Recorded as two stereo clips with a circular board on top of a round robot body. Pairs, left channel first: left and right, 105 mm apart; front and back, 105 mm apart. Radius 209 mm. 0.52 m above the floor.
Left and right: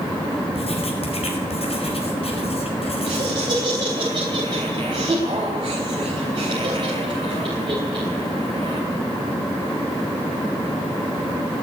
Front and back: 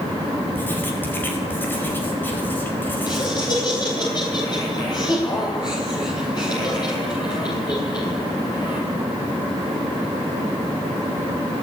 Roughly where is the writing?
Left.